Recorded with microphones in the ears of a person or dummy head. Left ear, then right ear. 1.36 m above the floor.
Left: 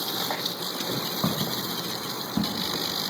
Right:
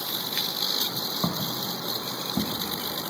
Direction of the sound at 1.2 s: 10° right (ahead or behind).